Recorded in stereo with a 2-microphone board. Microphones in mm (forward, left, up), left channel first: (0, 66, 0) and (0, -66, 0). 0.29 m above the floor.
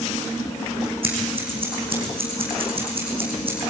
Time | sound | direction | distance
1.0 | scissors | 45° right (ahead or behind) | 5 m